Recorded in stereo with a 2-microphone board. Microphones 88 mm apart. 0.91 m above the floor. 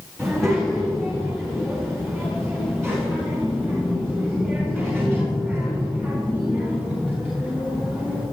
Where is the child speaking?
5° left (ahead or behind), 3.5 m; by 8.2 s 10° left (ahead or behind), 7.5 m.